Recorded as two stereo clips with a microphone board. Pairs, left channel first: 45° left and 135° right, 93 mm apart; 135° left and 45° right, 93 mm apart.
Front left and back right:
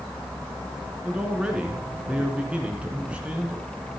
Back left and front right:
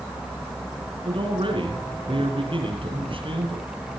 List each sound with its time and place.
1.1 s a man speaking: 60° right, 3 m